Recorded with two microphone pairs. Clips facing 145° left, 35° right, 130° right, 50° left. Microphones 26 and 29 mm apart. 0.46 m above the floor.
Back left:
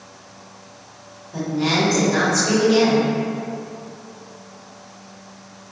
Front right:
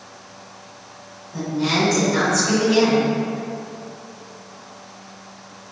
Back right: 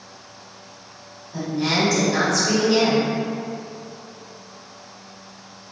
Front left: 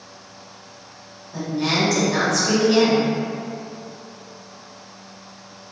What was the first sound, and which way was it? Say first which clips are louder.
A woman speaking: back left 1 dB, even; 135° left.